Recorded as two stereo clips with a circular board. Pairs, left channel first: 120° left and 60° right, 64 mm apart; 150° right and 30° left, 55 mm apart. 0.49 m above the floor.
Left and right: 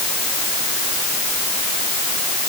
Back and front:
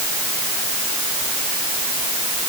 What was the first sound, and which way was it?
Only background noise.